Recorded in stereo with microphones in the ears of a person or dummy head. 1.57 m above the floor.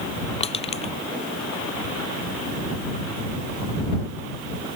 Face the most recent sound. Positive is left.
turn(degrees=35)  # may be behind; listen again after turning